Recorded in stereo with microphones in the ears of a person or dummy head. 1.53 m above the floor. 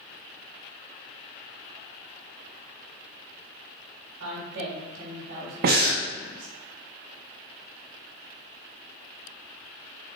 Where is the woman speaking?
80° right, 3 m.